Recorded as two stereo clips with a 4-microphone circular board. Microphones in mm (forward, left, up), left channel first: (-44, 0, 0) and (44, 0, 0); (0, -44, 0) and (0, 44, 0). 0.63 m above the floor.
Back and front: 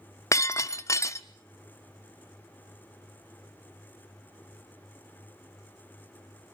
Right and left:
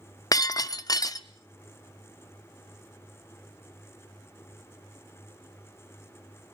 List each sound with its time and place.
0.3 s breaking glass: 130° right, 0.7 m